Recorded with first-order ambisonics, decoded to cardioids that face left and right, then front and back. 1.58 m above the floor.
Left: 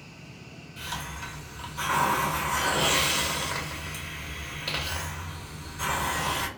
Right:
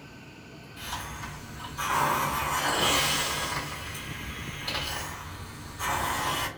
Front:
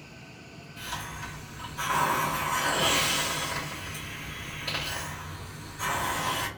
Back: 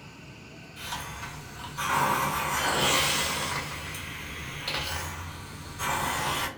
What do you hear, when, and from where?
0.8 s a hiss: 115° left, 1.4 m